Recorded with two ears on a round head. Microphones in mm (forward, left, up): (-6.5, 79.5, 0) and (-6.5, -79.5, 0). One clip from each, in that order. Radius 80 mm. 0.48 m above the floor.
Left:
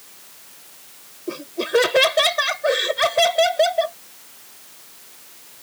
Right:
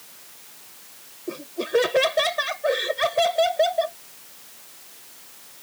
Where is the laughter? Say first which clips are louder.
Left 3 dB; 25° left (ahead or behind).